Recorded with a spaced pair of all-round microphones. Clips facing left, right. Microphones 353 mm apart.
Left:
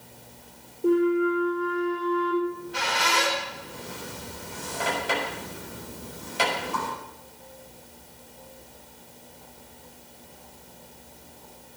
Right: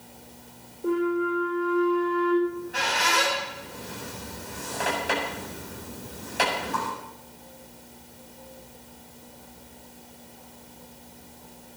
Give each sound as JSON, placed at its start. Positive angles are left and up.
{"t": 0.8, "sound": "a flute", "side_deg": 40, "distance_m": 5.0}
{"t": 2.4, "sound": "a squeak", "side_deg": 5, "distance_m": 7.5}